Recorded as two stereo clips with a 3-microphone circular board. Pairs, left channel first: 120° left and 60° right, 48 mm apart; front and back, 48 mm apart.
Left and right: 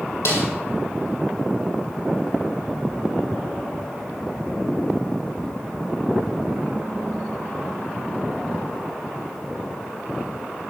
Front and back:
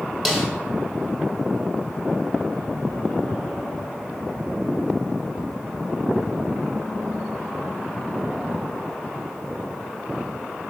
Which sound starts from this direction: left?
A snare drum, at 0.2 s.